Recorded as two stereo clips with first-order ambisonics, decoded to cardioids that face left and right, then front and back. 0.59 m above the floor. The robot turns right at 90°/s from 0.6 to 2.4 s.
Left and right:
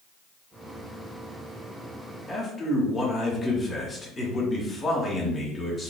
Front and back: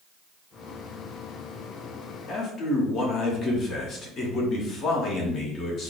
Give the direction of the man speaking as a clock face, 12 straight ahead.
12 o'clock.